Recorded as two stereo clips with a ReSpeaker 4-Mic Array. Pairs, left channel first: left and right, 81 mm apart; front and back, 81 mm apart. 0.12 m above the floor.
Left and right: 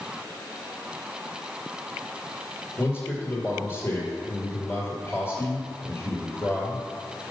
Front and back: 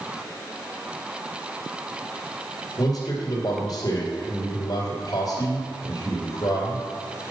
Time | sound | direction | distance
2.8 | a man speaking | 35° left | 2.5 m